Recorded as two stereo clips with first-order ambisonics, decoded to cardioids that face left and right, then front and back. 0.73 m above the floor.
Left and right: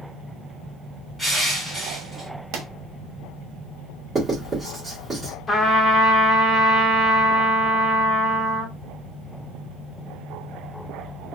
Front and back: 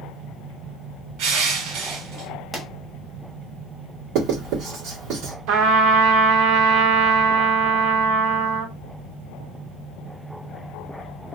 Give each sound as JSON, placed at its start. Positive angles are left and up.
{"t": 1.2, "sound": "crushing", "azimuth_deg": -175, "distance_m": 1.5}
{"t": 2.5, "sound": "a pop", "azimuth_deg": -100, "distance_m": 0.9}
{"t": 4.2, "sound": "writing", "azimuth_deg": -160, "distance_m": 1.9}
{"t": 5.5, "sound": "a trumpet", "azimuth_deg": 165, "distance_m": 0.9}